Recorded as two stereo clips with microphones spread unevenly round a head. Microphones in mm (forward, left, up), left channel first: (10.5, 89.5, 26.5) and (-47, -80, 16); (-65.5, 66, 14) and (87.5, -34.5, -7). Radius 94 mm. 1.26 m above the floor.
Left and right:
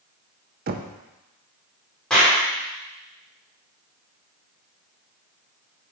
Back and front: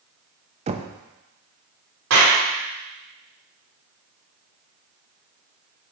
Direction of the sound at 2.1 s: 15° right.